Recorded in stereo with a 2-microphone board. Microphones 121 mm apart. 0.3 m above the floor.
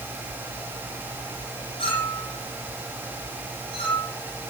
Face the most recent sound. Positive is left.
turn(degrees=50)  # may be behind; listen again after turning